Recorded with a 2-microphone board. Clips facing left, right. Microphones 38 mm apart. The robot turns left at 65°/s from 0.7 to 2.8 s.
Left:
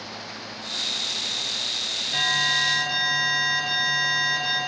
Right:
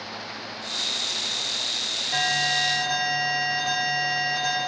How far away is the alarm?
About 3.5 m.